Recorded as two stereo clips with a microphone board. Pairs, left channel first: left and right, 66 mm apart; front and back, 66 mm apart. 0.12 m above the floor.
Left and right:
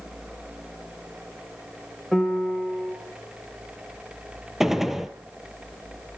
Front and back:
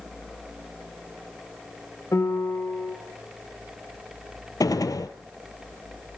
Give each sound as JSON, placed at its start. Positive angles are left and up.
{"t": 2.1, "sound": "a piano", "azimuth_deg": 0, "distance_m": 2.5}
{"t": 4.6, "sound": "a gunshot", "azimuth_deg": -5, "distance_m": 1.2}